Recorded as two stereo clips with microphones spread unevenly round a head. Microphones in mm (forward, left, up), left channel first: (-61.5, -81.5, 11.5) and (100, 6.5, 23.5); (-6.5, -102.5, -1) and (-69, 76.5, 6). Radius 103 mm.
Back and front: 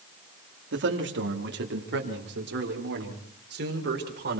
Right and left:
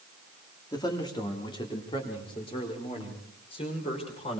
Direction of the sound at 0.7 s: 5° left.